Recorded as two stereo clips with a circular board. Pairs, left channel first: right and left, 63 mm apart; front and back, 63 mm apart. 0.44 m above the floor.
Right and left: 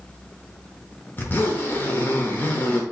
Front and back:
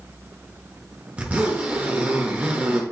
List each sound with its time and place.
1.2 s a zipper: 125° right, 1.0 m